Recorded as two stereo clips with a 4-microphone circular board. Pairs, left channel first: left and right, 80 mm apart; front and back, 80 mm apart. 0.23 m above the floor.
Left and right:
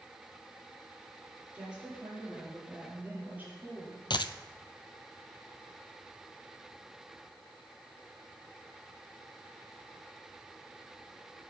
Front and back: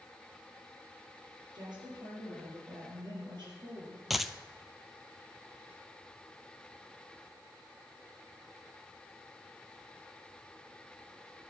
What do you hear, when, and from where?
1.5 s a woman speaking: 165° right, 6 m; by 4.0 s 155° right, 6 m
4.1 s a dropped coin: 95° left, 0.5 m